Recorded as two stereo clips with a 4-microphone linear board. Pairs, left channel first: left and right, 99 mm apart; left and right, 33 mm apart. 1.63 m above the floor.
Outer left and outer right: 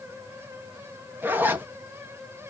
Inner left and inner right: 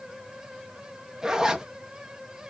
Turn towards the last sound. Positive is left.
turn(degrees=-20)  # may be behind; listen again after turning